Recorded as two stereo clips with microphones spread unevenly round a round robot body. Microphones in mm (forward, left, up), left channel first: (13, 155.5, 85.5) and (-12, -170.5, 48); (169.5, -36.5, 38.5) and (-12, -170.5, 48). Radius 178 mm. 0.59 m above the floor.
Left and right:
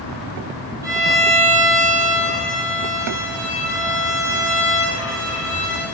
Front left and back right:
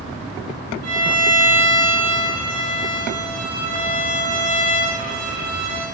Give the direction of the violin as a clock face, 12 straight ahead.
6 o'clock.